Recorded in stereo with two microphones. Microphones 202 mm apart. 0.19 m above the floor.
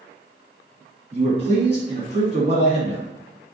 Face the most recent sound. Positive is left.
turn(degrees=-25)  # may be behind; listen again after turning